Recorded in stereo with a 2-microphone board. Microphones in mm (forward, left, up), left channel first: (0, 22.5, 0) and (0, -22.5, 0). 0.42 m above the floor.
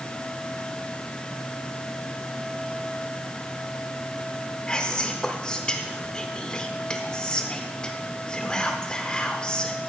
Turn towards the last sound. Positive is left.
turn(degrees=20)  # may be behind; listen again after turning